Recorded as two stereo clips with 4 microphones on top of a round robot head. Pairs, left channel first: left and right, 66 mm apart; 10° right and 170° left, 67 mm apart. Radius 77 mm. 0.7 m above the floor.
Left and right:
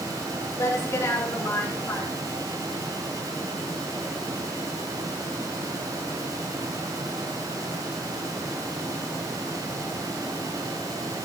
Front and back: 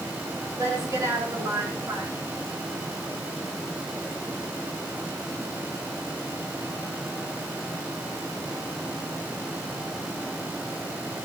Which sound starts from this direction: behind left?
A woman speaking, at 0.6 s.